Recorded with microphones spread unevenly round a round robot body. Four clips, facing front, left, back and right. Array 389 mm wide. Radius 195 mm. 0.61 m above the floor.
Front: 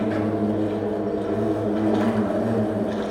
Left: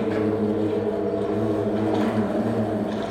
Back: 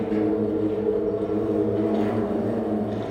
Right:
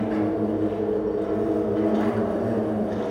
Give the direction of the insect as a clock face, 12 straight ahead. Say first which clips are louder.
Left 1 dB, even; 11 o'clock.